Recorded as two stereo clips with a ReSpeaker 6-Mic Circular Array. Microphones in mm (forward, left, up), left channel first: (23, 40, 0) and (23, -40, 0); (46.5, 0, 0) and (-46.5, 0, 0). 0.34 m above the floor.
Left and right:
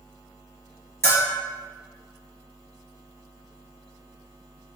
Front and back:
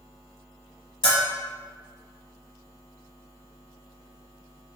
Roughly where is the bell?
Ahead left.